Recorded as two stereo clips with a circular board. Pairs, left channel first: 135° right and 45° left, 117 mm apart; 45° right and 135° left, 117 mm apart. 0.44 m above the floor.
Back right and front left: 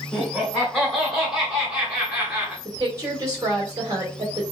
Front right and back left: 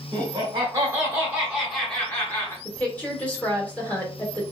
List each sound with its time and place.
0.1 s laughter: 145° left, 1.2 m; by 2.5 s 15° right, 1.0 m
2.6 s a woman speaking: 20° left, 1.5 m